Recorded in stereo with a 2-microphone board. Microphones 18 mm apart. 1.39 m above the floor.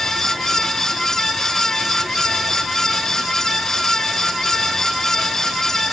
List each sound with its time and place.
Only background noise.